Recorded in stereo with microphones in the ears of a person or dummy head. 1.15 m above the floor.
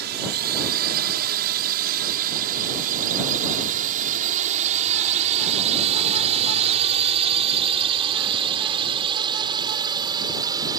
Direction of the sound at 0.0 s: 60° right (ahead or behind).